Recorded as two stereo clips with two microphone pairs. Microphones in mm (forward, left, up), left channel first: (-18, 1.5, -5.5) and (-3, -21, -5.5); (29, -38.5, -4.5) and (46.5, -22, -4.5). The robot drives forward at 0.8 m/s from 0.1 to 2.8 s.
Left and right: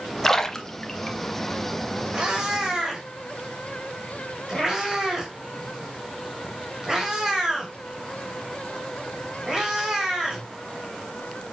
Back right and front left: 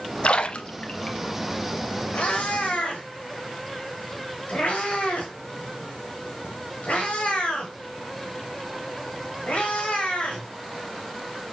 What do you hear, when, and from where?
0.2 s a splash: 160° right, 0.5 m; by 1.2 s 170° right, 1.2 m
2.1 s a cat meowing: 115° right, 2 m; by 10.5 s 125° right, 2.5 m